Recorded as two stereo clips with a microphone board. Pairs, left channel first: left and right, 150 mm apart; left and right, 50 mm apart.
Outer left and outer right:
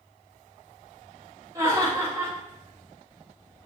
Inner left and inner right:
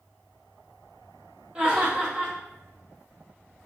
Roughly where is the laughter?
Right.